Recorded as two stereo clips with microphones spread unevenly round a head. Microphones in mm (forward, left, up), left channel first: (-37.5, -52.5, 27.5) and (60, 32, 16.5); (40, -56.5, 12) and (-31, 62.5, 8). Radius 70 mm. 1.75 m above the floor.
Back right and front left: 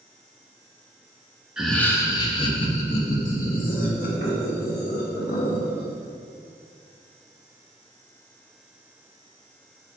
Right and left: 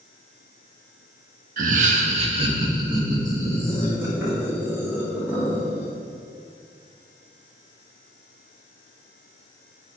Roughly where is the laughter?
Behind left.